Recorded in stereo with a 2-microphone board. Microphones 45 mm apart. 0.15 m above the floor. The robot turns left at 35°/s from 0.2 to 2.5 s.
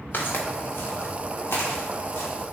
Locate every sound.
0.1 s footsteps: 45° left (ahead or behind), 1.1 m; by 2.3 s 80° left, 2.5 m